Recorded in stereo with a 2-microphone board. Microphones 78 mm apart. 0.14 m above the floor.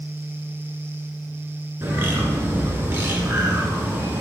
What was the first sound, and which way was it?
A bird, 30° right (ahead or behind).